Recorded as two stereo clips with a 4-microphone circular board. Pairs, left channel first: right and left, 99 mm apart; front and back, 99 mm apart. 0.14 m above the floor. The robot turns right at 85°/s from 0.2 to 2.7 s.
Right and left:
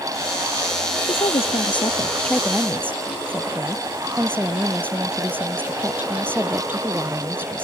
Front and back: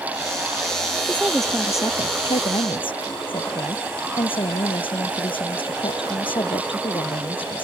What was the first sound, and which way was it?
A woman speaking, 115° right.